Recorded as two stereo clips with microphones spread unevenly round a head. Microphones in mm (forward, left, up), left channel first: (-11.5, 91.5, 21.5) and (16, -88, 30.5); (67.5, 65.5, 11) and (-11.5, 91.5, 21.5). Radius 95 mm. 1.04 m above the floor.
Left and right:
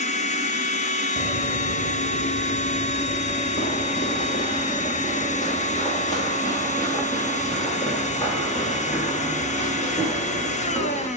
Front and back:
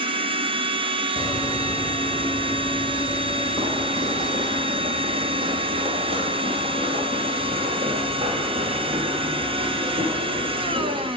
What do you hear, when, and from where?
0.0 s a machine running: 150° left, 1.1 m
1.2 s running footsteps: 55° left, 1.2 m; by 11.1 s straight behind, 5.5 m